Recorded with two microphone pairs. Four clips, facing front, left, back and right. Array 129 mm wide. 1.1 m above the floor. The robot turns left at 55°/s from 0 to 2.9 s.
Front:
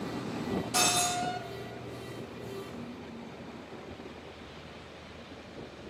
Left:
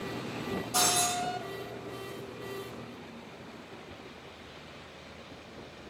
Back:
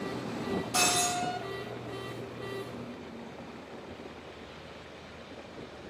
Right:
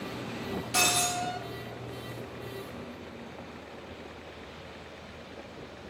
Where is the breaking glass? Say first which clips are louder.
Even, even; 70° right, 2.0 m; by 1.2 s 95° right, 2.0 m.